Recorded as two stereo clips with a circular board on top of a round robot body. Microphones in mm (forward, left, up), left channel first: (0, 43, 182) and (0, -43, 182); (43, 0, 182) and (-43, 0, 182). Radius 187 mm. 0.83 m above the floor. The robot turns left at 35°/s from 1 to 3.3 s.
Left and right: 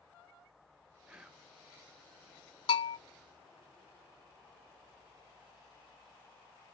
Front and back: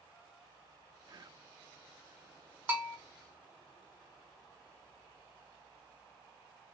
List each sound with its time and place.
1.1 s whispering: 165° right, 0.6 m; by 1.5 s straight behind, 0.6 m
2.7 s a bell: 105° left, 0.6 m; by 3.0 s 95° left, 0.6 m